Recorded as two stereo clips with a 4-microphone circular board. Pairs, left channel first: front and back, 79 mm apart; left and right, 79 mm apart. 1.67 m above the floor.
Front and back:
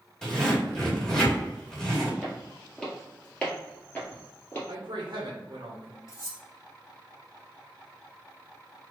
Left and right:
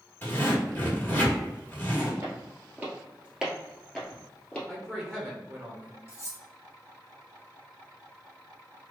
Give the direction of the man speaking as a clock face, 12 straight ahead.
5 o'clock.